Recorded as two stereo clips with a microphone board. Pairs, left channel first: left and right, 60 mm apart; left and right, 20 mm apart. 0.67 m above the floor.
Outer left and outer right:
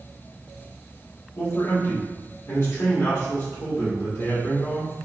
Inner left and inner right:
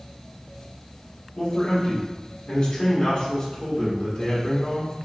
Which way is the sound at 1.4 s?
50° left (ahead or behind).